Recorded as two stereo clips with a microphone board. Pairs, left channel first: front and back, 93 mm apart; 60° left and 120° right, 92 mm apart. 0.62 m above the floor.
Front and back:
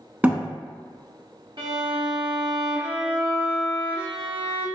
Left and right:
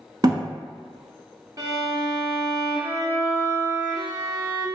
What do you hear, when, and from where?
0.2 s a thud: 115° right, 0.7 m
1.6 s a violin: 165° right, 1.2 m